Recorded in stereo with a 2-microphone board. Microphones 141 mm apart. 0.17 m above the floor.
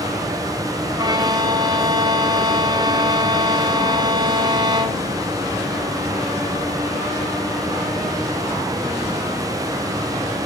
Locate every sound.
1.0 s a violin: 30° right (ahead or behind), 1.6 m